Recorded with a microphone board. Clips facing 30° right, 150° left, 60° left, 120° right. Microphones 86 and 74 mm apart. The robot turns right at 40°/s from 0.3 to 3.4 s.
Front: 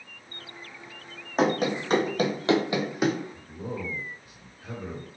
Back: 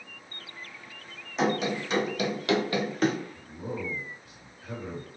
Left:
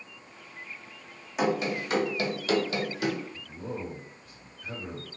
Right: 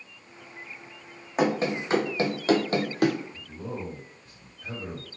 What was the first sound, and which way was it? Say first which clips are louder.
Running footsteps: front 3 dB, right 2 dB; 70° right.